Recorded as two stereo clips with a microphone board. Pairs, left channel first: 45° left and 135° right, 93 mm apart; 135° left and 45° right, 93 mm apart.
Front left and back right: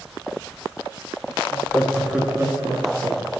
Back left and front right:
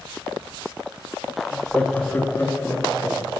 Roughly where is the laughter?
Left.